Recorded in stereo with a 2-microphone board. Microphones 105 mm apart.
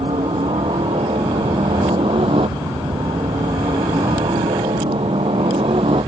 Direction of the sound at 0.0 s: 65° right (ahead or behind).